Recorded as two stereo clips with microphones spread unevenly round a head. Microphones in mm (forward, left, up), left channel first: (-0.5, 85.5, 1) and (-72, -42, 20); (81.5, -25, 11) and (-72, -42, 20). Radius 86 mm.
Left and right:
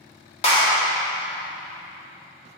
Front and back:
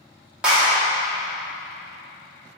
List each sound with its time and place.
0.4 s a clap: 100° left, 2 m